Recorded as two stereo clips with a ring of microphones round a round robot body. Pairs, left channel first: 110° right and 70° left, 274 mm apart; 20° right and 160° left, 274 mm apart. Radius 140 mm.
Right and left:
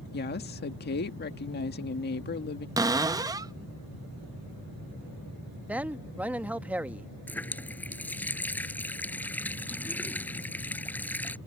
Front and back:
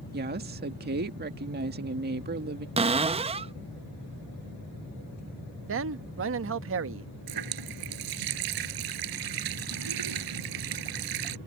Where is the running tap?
165° left.